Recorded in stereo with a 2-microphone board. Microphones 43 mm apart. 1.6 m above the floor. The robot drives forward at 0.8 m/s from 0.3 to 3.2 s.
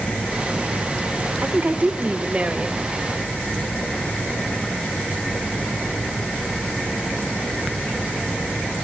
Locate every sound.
1.4 s a woman speaking: 55° right (ahead or behind), 1.2 m; by 2.9 s 25° right (ahead or behind), 2 m